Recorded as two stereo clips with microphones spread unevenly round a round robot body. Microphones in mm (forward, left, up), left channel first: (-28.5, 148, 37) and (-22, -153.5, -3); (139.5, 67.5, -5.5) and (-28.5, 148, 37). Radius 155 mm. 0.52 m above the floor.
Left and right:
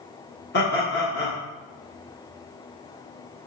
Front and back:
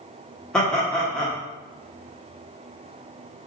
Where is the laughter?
45° left, 1.3 m.